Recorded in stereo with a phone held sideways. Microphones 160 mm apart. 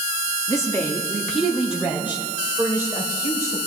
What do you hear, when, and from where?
0.5 s a woman speaking: 20° left (ahead or behind), 1.9 m; by 3.6 s 20° right (ahead or behind), 5.5 m